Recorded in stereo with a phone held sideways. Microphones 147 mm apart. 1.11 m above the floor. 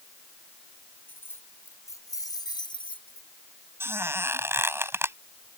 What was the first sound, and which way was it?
Keys jangling, 10° left (ahead or behind).